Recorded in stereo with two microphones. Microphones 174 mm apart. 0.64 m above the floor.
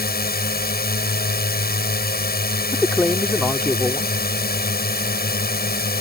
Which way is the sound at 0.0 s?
65° left (ahead or behind).